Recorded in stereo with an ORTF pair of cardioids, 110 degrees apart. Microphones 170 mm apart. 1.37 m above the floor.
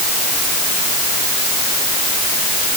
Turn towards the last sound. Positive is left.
No sound to turn to.